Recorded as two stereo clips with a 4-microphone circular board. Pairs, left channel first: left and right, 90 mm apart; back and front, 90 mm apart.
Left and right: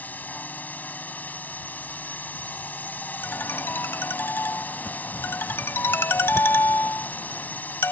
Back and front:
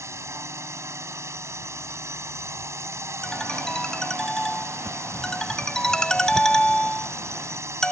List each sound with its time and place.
0.0 s a drone: 30° left
3.2 s a ringtone: 105° left